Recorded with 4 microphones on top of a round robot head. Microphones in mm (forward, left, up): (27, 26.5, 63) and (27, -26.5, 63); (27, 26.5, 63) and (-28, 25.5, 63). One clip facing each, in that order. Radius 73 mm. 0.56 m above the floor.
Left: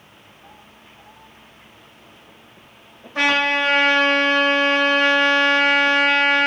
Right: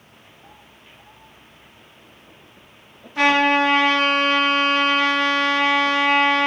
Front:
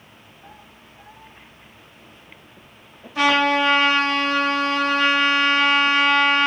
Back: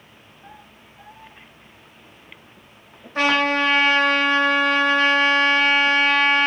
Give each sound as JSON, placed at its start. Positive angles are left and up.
{"t": 3.1, "sound": "a trumpet", "azimuth_deg": 135, "distance_m": 2.5}